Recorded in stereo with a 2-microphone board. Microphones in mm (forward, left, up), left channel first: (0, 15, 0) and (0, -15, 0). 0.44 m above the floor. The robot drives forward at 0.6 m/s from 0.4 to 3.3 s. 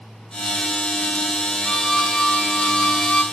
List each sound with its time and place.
1.6 s a violin: 5° left (ahead or behind), 2.5 m; by 3.2 s centre (ahead or behind), 3.5 m